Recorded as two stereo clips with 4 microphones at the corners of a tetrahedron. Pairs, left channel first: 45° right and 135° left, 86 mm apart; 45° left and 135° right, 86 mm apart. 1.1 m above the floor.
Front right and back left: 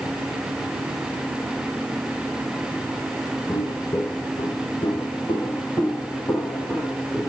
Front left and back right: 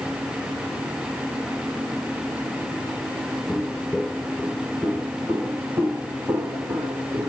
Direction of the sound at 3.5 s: 30° right.